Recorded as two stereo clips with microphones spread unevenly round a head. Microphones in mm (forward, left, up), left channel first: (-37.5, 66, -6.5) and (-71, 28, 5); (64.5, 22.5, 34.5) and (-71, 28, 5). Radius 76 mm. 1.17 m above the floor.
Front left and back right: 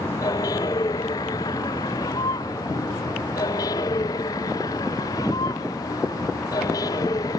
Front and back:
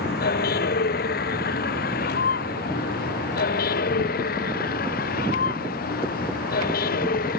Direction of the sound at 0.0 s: 10° left.